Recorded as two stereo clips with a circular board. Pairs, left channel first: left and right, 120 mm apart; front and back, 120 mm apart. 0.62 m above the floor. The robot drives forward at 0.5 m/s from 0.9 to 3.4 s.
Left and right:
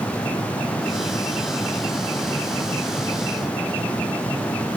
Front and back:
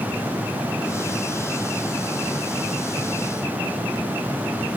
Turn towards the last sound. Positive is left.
No sound to turn to.